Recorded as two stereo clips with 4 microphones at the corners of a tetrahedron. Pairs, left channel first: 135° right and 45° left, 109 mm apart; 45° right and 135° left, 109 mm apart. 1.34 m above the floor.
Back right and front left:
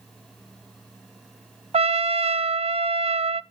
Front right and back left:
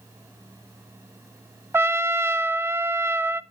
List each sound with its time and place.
1.7 s a trumpet: 70° left, 0.5 m